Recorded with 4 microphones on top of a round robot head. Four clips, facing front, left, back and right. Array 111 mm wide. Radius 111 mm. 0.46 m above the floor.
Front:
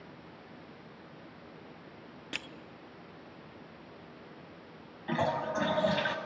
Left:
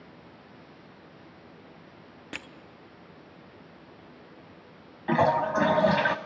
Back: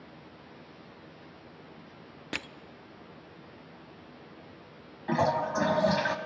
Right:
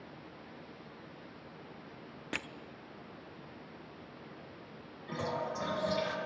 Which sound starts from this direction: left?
A toilet flushing, at 5.1 s.